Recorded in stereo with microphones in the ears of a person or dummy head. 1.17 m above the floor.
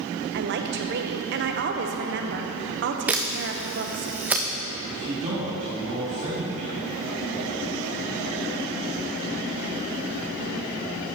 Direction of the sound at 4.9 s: 30° right (ahead or behind).